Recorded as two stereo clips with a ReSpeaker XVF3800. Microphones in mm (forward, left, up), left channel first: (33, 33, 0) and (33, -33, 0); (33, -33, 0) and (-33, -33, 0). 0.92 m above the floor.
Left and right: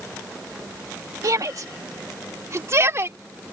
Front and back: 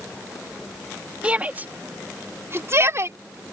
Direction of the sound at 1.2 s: 110° right.